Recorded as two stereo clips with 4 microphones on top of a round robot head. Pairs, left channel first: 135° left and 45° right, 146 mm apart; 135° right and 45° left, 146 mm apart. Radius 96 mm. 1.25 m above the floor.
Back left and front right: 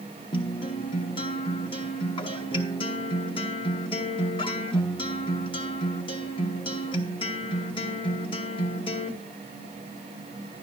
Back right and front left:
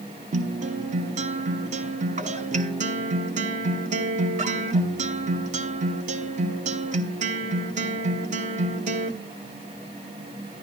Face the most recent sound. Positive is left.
turn(degrees=80)